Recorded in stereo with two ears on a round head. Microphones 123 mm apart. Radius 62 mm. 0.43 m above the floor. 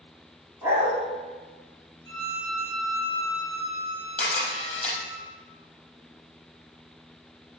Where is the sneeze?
No sneeze in this recording.